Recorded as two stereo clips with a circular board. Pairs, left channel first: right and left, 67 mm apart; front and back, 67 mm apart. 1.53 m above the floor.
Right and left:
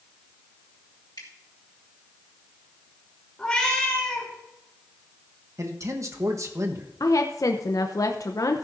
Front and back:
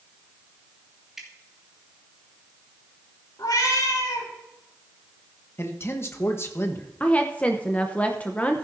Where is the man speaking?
50° left, 1.3 m.